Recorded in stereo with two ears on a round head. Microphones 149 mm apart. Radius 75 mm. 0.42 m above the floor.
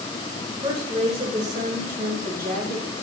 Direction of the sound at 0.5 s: 25° right (ahead or behind).